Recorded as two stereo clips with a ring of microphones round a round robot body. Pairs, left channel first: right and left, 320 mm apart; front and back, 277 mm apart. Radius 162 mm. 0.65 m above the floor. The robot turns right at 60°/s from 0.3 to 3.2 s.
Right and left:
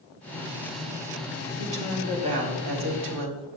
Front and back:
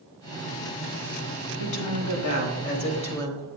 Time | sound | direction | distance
1.6 | a woman speaking | 20° right | 2 m